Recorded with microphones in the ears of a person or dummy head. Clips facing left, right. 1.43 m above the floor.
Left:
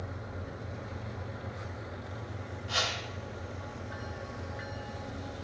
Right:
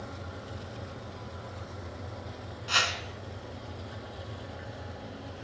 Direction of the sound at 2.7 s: 85° right.